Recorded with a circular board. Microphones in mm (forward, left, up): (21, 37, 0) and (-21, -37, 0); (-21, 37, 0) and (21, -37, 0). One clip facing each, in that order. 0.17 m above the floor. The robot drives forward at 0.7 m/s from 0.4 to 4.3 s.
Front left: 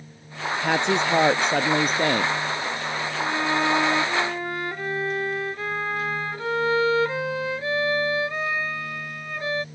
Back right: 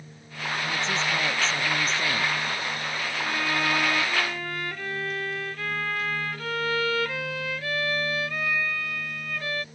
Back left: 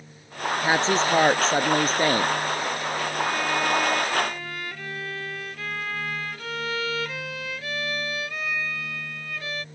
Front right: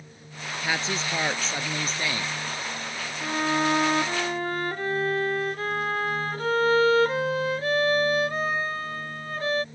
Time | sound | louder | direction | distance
0.6 | a woman speaking | front left 8 dB, back left 7 dB | 65° left | ?
3.2 | a violin | front left 4 dB, front right 2 dB | 5° right | ?